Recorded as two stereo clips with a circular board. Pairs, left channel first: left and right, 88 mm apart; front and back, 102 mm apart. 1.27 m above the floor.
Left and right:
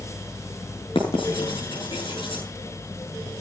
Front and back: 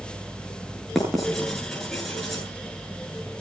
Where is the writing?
90° left, 8 m.